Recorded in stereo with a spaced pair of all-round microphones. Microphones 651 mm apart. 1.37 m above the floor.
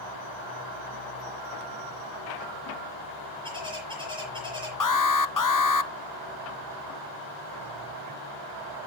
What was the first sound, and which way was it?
A bird, 5° right (ahead or behind).